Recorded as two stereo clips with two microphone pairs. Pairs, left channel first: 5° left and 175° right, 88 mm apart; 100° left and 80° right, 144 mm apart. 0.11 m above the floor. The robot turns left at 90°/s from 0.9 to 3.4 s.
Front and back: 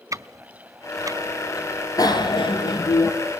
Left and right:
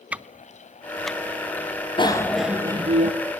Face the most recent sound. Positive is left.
turn(degrees=-80)